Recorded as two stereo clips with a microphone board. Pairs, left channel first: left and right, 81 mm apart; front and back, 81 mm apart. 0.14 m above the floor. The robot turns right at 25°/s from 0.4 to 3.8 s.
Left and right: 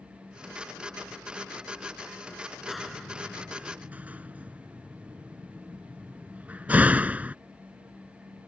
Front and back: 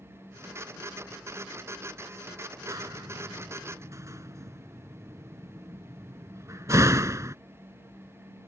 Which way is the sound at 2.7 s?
Straight behind.